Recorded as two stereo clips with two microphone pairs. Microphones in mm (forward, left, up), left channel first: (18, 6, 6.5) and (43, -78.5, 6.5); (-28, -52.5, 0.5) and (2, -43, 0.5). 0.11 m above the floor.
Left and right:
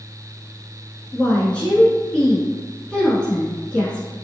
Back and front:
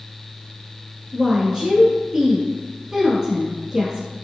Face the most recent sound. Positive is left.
turn(degrees=50)